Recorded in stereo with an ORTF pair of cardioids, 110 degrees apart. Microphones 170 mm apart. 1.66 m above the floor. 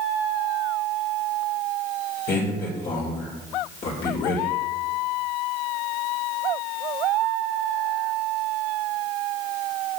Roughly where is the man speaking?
Ahead left.